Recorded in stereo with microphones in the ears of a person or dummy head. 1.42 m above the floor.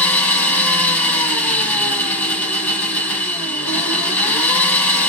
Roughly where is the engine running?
Centre.